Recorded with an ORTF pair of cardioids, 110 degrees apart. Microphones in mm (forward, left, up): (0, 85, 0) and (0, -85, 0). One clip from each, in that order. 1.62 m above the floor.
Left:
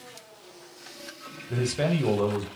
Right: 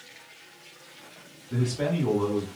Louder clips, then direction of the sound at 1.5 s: Left 2 dB; 55° left.